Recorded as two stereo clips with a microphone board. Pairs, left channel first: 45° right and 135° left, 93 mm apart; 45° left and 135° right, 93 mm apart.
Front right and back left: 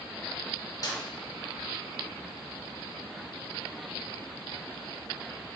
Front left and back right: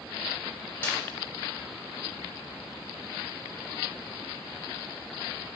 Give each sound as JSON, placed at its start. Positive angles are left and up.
{"t": 0.8, "sound": "a snare drum", "azimuth_deg": -15, "distance_m": 1.1}